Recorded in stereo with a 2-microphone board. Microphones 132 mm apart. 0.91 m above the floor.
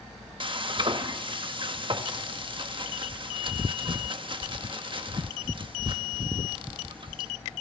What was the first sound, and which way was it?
Frying, 40° right (ahead or behind).